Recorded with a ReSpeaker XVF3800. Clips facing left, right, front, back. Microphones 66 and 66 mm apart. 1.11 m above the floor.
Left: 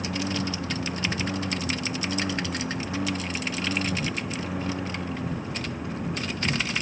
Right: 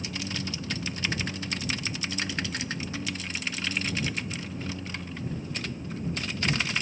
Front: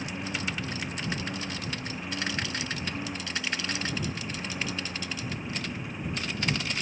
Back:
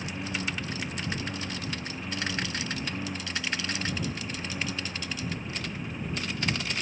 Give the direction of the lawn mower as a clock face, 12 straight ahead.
9 o'clock.